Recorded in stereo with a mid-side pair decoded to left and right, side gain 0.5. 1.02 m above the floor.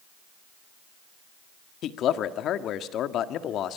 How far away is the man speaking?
About 1.7 m.